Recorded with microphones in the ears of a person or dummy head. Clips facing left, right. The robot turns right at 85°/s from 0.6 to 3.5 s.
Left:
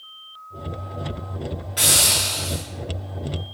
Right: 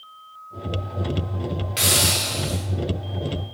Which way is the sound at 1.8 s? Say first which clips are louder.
Right 1 dB; 65° right.